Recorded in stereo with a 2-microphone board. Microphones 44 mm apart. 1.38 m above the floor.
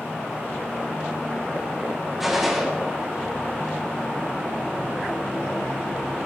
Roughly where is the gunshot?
Centre.